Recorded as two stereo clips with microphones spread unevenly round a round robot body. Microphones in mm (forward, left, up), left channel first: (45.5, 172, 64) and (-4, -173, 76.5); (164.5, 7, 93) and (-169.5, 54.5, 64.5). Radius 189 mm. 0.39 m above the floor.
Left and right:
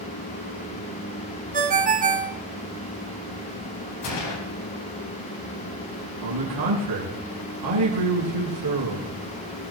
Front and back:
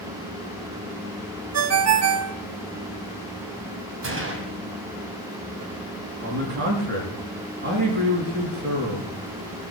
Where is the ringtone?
165° right, 1.2 m.